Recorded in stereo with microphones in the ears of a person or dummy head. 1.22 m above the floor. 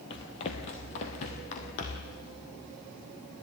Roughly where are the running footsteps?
Left.